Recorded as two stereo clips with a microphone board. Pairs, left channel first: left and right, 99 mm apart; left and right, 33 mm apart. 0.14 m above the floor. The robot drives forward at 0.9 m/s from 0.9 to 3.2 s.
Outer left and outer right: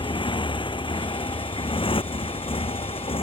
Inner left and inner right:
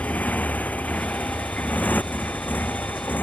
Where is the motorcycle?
65° left (ahead or behind); by 3.2 s 85° left.